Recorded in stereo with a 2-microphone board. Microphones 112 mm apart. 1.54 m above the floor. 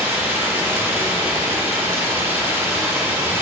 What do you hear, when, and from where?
0.0 s running water: 20° right (ahead or behind), 1.0 m